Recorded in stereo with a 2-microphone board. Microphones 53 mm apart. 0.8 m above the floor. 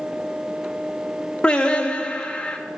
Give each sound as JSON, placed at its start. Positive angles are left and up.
{"t": 1.4, "sound": "singing", "side_deg": 20, "distance_m": 1.1}